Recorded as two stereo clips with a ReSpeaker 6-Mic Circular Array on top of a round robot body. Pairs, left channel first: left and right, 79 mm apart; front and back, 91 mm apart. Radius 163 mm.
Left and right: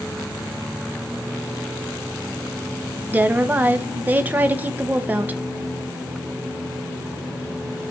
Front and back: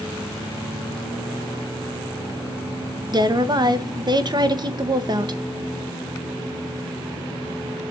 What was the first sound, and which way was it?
A woman speaking, 155° right.